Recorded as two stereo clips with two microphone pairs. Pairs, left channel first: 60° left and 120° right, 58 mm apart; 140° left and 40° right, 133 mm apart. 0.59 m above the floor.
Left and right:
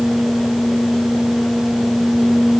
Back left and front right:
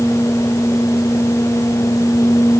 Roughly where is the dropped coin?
No dropped coin in this recording.